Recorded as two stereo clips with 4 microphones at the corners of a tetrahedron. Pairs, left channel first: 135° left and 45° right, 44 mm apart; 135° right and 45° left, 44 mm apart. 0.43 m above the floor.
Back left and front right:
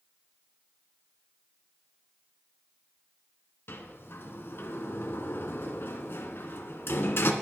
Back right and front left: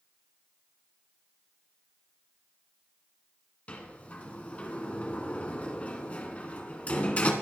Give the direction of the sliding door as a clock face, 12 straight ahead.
6 o'clock.